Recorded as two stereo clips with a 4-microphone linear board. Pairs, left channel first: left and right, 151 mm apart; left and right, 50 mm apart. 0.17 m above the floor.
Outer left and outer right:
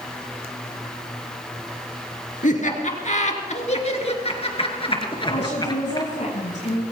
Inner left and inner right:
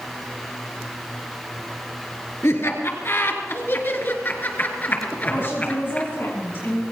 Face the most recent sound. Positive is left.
turn(degrees=50)  # may be behind; listen again after turning